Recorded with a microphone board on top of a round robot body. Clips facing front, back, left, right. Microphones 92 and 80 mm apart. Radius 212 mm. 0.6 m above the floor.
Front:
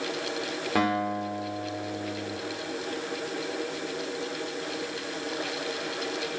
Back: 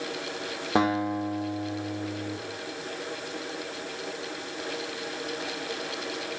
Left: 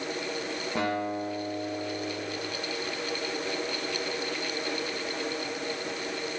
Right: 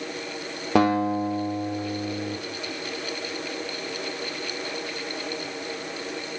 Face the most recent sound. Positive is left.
turn(degrees=-110)